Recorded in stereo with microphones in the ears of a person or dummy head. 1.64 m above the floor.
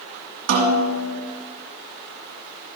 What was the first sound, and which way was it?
A snare drum, 55° right (ahead or behind).